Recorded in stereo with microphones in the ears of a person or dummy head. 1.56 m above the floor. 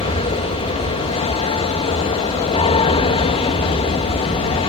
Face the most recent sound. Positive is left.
turn(degrees=30)  # may be behind; listen again after turning